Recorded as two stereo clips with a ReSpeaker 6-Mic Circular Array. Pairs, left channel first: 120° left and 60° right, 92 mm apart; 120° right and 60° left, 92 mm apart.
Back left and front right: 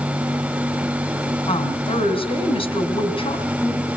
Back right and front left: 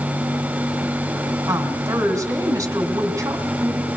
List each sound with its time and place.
1.5 s a woman speaking: 115° left, 4 m